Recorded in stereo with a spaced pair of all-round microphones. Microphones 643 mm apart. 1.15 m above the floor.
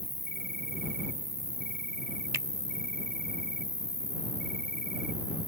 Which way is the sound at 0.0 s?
75° left (ahead or behind).